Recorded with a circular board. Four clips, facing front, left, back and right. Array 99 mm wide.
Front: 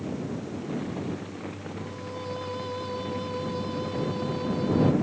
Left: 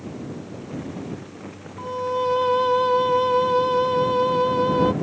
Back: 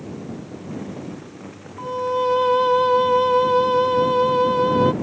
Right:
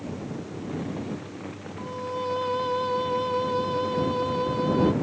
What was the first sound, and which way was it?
A violin, 150° left.